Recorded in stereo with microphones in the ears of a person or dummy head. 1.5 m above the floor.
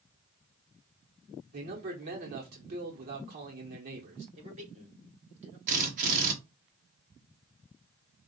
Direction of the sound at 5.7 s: 45° right (ahead or behind).